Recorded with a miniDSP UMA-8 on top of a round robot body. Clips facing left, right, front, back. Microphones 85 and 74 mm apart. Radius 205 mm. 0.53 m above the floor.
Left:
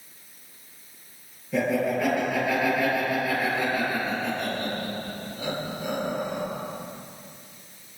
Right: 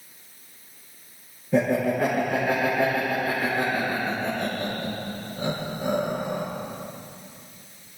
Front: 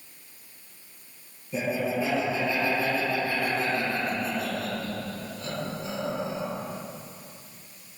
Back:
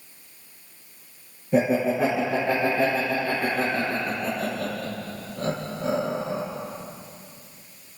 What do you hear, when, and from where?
1.5 s laughter: 150° right, 9.5 m